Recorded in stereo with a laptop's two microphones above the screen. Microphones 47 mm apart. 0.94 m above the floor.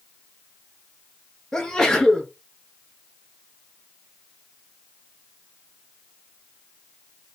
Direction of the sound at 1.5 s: 15° left (ahead or behind).